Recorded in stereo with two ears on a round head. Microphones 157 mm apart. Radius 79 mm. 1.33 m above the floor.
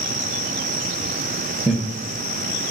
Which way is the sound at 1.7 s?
5° right (ahead or behind).